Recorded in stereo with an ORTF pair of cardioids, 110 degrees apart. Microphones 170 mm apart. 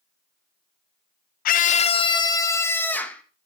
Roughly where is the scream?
Ahead left.